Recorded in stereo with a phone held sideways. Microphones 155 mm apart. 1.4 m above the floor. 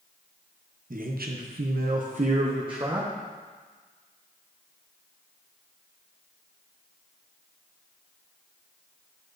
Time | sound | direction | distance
0.9 | a man speaking | 60° right (ahead or behind) | 0.8 m